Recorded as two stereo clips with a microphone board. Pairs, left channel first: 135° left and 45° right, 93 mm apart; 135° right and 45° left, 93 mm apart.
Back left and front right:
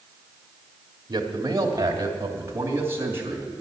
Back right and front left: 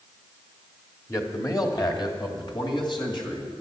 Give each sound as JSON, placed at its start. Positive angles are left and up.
{"t": 1.1, "sound": "a man speaking", "azimuth_deg": -80, "distance_m": 1.7}